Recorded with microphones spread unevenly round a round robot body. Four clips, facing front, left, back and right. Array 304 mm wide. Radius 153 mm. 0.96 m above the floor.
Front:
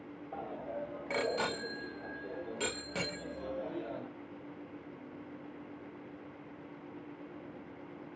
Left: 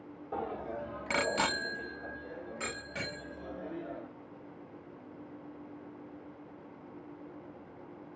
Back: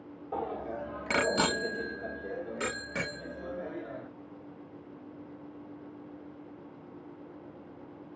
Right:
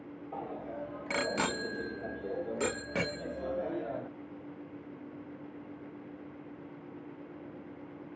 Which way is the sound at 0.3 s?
135° left.